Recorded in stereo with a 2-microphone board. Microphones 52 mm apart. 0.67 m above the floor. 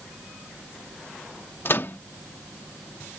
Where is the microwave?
50° left (ahead or behind).